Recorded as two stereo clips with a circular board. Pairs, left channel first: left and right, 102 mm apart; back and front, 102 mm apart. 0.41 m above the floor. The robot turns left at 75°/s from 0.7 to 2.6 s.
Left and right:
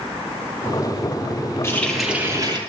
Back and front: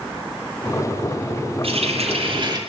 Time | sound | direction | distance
1.6 | a running tap | 25° left | 7 m